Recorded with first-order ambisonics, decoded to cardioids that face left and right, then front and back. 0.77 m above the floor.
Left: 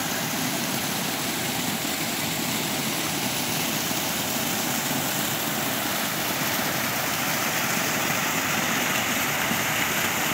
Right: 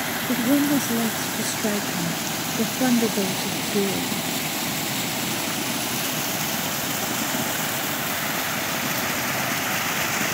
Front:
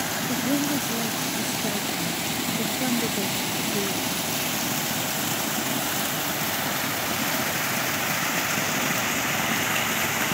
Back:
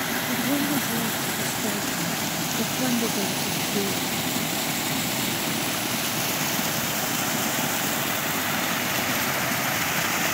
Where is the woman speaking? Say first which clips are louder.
Right 6 dB, even; 85° right; by 4.2 s 95° right.